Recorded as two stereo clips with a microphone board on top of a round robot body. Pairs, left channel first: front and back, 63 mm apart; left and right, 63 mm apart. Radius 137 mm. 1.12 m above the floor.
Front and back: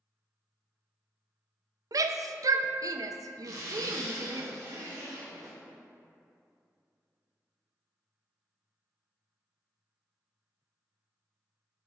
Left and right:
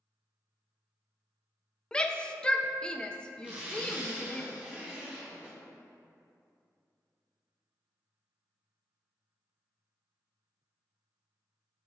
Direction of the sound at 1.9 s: 165° left.